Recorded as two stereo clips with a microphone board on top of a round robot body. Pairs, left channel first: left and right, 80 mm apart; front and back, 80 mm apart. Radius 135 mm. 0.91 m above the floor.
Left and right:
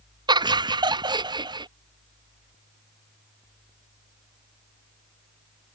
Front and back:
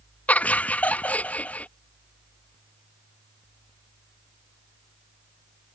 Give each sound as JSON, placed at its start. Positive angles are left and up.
{"t": 0.3, "sound": "laughter", "azimuth_deg": -70}